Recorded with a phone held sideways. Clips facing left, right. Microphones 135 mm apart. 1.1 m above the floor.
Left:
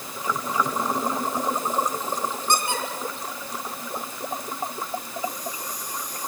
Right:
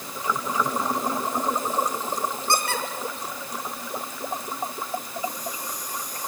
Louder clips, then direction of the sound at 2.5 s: Left 1 dB; 15° left (ahead or behind).